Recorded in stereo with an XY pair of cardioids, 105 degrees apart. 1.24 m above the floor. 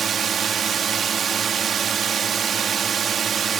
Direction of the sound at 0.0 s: 50° right.